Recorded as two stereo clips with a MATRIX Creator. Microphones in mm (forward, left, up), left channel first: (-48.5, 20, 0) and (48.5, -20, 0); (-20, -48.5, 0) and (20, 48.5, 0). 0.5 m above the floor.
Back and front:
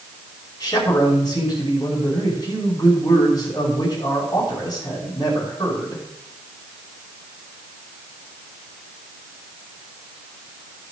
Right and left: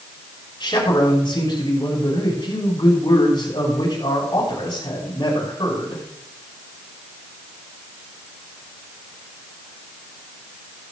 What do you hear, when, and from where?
0.6 s a man speaking: 155° right, 5.5 m